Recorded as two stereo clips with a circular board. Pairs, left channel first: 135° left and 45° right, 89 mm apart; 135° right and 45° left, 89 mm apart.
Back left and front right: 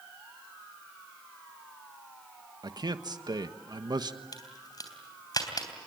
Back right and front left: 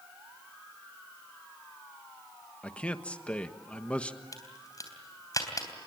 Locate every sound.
2.6 s a man speaking: 60° right, 1.3 m
4.3 s a crack: 175° left, 3 m